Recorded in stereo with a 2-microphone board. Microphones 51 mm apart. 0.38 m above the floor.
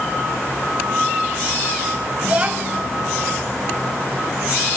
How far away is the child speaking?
About 2 m.